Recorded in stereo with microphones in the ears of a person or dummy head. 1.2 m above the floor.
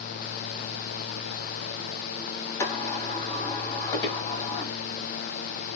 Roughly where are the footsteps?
Left.